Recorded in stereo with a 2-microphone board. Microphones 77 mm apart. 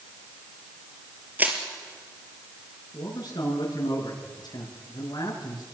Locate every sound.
1.4 s crushing: 25° right (ahead or behind), 4 m
2.9 s a man speaking: 70° left (ahead or behind), 8 m